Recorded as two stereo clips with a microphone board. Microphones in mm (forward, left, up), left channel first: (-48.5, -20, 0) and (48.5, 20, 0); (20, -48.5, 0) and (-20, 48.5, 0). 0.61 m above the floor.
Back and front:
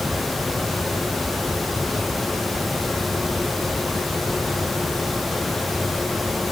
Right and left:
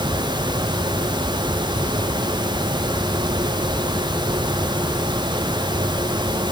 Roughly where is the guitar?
No guitar in this recording.